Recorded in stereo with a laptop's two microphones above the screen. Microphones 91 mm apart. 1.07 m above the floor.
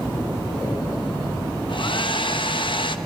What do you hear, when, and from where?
1.7 s a hair dryer: 65° left (ahead or behind), 0.6 m